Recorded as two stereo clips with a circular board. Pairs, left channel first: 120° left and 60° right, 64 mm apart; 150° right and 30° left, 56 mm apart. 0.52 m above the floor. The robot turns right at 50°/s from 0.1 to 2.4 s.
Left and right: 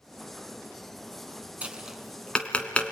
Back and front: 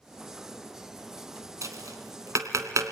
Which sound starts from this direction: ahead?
Tapping, at 1.6 s.